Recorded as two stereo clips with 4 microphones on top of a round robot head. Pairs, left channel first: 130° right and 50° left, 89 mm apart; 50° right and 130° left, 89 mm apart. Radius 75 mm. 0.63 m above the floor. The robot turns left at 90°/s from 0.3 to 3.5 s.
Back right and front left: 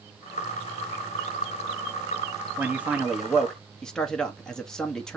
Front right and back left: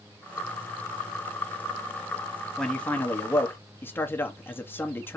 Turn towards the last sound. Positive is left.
turn(degrees=-60)